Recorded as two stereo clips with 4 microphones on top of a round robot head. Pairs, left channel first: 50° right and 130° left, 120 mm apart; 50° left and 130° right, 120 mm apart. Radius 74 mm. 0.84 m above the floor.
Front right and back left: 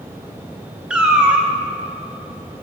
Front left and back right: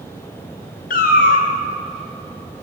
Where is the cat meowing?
45° left, 0.5 m.